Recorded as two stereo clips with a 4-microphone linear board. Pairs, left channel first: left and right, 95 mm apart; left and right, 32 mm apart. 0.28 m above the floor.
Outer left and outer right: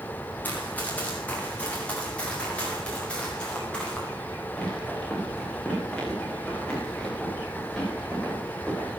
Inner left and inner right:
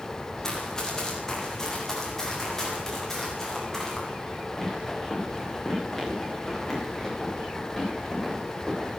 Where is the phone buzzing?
I don't hear a phone buzzing.